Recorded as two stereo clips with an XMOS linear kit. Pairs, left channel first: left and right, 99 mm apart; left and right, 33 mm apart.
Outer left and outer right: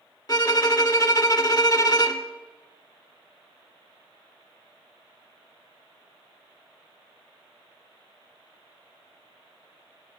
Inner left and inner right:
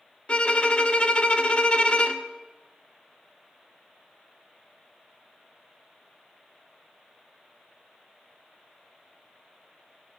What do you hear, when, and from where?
0.3 s a violin: 40° left (ahead or behind), 0.7 m